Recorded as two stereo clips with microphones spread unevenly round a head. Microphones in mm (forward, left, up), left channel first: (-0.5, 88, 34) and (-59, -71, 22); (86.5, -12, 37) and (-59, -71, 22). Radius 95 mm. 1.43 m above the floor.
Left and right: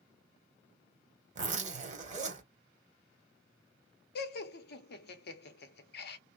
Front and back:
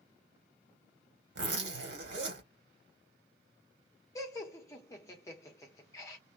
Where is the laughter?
95° left, 0.9 m.